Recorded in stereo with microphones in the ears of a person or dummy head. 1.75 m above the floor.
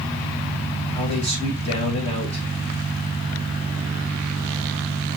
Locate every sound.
0.9 s a man speaking: 25° left (ahead or behind), 3 m